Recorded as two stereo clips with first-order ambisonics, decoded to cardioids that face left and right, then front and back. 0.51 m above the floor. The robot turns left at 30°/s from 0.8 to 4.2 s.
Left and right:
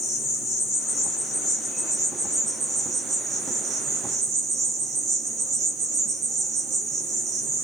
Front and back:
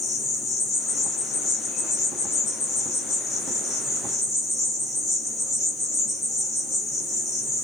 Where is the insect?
45° left, 1.5 m; by 7.7 s 60° right, 1.5 m.